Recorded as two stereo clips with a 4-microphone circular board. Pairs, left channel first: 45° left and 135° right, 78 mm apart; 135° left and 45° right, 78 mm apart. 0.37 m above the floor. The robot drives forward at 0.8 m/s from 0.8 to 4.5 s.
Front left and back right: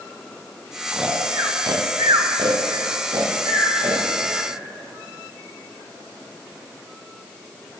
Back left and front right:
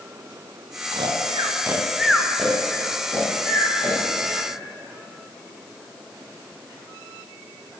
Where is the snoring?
55° right, 0.7 m; by 4.5 s 165° right, 2.5 m.